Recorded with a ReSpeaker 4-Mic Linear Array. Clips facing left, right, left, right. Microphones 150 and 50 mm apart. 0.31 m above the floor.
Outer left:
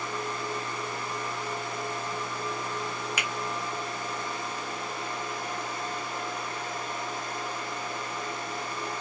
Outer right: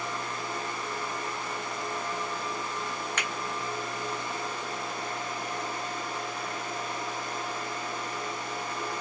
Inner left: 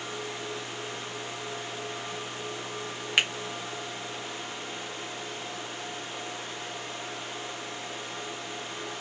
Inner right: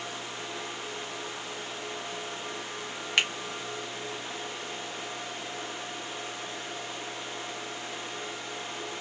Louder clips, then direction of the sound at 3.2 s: Even, inner left 1 dB; 10° left (ahead or behind).